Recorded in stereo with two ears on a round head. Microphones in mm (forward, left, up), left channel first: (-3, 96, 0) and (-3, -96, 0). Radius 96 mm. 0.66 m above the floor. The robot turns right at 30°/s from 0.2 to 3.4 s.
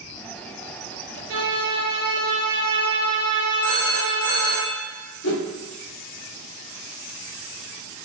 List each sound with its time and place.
1.3 s a violin: 70° right, 1.7 m; by 4.6 s 5° right, 1.7 m
3.6 s a phone ringing: 10° left (ahead or behind), 1.0 m
5.2 s a whoosh: 65° left (ahead or behind), 0.7 m